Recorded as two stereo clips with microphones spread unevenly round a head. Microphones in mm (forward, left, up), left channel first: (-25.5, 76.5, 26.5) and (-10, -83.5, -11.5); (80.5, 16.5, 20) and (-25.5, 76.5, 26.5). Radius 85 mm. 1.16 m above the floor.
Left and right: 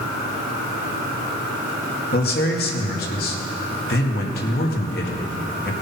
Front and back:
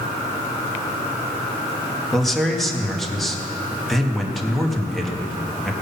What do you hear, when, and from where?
2.1 s a man speaking: 60° left, 1.8 m